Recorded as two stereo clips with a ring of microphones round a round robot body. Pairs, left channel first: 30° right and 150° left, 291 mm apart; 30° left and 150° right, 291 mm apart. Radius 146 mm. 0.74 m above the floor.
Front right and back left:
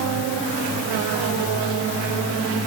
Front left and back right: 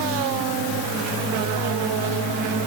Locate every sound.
Only background noise.